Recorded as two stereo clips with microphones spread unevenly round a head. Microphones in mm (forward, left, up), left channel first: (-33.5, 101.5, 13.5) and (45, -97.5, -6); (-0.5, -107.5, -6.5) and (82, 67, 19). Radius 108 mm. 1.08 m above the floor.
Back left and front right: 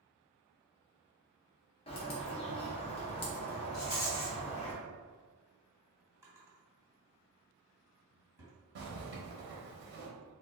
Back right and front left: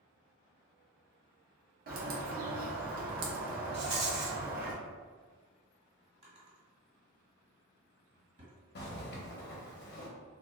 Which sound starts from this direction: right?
A zipper, at 8.8 s.